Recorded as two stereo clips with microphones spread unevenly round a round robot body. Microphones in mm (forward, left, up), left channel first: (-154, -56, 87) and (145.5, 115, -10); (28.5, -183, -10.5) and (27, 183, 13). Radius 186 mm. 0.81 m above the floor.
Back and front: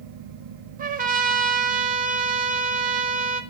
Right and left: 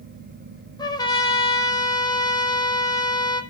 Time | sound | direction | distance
0.8 | a trumpet | 15° right | 1.4 m